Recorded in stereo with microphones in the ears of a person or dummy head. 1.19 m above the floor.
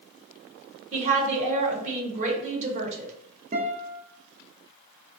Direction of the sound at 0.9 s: 35° right (ahead or behind).